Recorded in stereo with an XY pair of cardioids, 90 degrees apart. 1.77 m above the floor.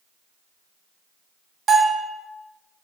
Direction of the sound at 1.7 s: 55° right.